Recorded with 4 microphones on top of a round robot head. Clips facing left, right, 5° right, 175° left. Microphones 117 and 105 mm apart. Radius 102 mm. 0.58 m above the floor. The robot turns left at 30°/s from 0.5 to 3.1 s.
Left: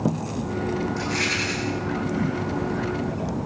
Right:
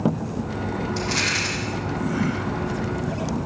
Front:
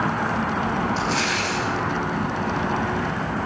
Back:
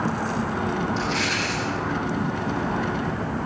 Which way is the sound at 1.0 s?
60° right.